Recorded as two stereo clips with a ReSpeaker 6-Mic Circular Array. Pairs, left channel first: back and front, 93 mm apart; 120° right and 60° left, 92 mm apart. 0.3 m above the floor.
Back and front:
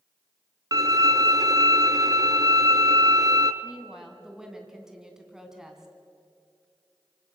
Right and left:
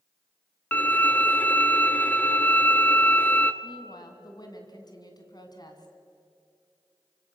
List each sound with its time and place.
0.7 s a violin: 50° right, 1.1 m
3.6 s a woman speaking: 85° right, 3 m